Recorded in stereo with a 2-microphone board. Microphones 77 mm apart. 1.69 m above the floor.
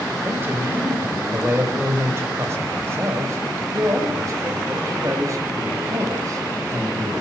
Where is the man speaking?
25° right (ahead or behind), 7 m; by 7.1 s 45° right (ahead or behind), 10 m.